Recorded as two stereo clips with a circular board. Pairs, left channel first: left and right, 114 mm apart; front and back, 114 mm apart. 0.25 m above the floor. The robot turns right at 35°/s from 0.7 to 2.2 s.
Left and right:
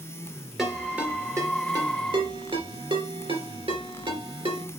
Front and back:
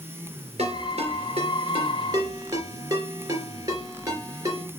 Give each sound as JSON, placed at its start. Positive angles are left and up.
{"t": 0.6, "sound": "a ringtone", "azimuth_deg": 180, "distance_m": 2.5}